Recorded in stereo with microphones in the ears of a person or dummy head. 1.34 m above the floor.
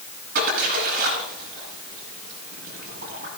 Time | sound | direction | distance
0.3 | a splash | 45° right (ahead or behind) | 9.5 m